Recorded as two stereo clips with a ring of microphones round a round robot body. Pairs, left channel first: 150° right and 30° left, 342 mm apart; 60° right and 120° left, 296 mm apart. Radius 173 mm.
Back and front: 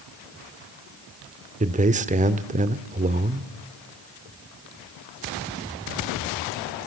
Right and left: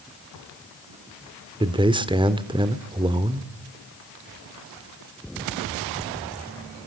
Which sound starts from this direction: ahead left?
A man speaking, at 1.6 s.